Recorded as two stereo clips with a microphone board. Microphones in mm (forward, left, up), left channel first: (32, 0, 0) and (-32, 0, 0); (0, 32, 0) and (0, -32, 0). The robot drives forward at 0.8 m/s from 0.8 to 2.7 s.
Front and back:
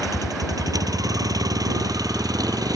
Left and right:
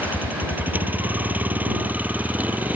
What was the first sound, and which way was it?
A vehicle, 155° right.